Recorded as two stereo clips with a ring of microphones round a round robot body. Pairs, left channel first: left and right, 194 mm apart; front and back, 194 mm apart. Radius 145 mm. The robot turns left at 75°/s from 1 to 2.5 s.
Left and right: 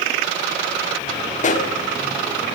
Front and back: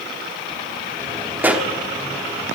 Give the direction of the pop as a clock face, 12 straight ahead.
8 o'clock.